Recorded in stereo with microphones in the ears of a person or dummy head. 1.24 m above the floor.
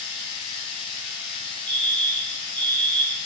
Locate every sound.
0.0 s a machine running: 55° left (ahead or behind), 1.6 m
1.7 s a fire alarm: 10° left (ahead or behind), 0.9 m